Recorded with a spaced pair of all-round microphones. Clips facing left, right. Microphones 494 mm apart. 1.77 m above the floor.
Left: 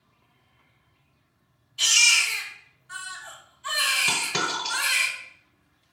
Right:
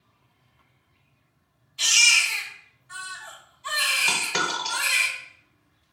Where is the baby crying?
35° left (ahead or behind), 1.2 m.